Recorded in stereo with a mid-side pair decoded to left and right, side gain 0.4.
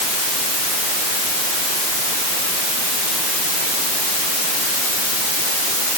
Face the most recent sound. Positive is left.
No sound to turn to.